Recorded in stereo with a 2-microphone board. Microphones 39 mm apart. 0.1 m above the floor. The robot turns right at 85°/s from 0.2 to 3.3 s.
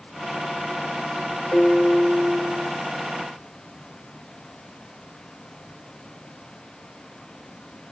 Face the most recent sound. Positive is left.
turn(degrees=-70)